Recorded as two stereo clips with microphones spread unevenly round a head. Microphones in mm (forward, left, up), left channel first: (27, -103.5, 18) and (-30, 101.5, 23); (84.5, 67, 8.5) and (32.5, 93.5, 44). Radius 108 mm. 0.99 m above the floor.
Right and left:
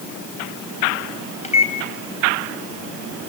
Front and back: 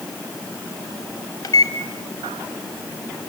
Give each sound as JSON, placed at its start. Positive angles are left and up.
{"t": 1.4, "sound": "a microwave", "azimuth_deg": -15, "distance_m": 4.0}